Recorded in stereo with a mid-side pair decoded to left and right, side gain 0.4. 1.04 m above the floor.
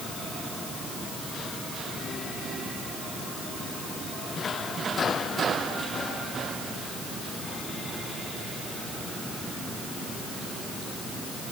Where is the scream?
I don't hear a scream.